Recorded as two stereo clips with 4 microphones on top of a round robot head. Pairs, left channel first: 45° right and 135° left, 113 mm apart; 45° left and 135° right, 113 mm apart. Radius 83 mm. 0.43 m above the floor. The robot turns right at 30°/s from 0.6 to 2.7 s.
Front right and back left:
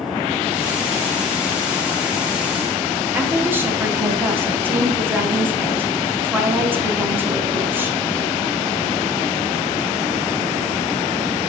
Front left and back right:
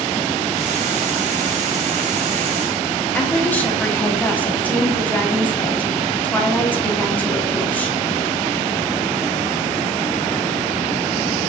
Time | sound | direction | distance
3.1 | a woman speaking | 100° left | 1.0 m